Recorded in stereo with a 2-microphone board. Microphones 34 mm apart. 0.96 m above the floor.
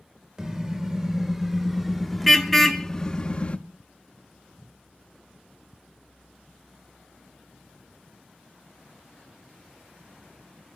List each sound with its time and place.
0.4 s a car horn: 25° right (ahead or behind), 3 m; by 3.6 s 30° left (ahead or behind), 1.2 m